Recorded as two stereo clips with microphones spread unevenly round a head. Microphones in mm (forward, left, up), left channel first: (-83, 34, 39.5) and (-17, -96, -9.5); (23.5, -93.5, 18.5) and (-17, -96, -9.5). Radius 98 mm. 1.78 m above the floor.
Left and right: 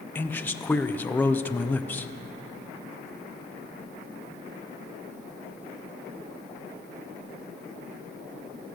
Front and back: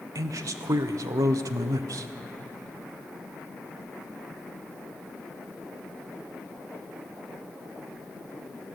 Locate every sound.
0.1 s a man speaking: 175° right, 0.9 m